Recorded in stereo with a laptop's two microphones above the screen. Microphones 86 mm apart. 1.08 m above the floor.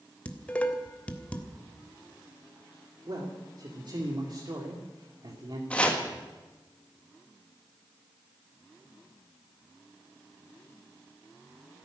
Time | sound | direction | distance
0.2 | dishes clattering | 15° left (ahead or behind) | 1.5 m
3.1 | a man speaking | 60° right (ahead or behind) | 2.5 m
5.7 | chopping | 15° left (ahead or behind) | 1.7 m